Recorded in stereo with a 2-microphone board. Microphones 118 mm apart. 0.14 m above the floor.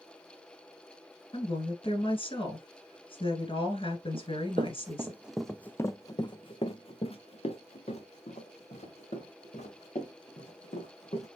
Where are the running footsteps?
55° right (ahead or behind), 0.7 m; by 11.3 s 75° left (ahead or behind), 3 m.